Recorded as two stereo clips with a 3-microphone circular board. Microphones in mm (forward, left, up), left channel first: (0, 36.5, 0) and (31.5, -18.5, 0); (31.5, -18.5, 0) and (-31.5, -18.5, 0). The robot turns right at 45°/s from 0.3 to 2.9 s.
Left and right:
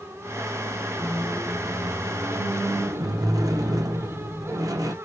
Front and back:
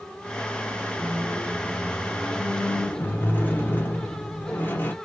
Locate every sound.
0.9 s a squeak: 145° right, 0.6 m; by 4.9 s 55° right, 0.6 m